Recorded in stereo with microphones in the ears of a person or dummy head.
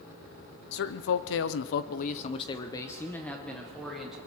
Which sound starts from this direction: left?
A man speaking, at 0.7 s.